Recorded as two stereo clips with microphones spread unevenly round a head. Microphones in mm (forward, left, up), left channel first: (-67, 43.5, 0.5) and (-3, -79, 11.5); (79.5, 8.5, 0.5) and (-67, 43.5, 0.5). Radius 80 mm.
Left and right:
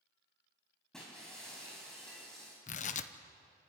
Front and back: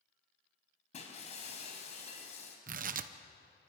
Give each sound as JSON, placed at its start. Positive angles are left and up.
{"t": 0.9, "sound": "breaking glass", "azimuth_deg": 30, "distance_m": 4.0}
{"t": 2.7, "sound": "tearing paper", "azimuth_deg": 145, "distance_m": 0.9}